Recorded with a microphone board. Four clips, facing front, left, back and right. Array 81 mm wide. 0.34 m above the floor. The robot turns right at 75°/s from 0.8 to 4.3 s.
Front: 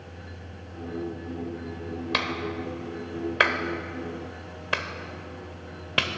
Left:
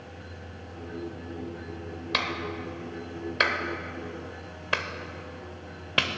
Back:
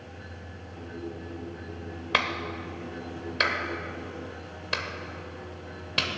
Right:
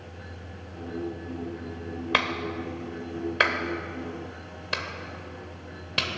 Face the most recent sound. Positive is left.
turn(degrees=45)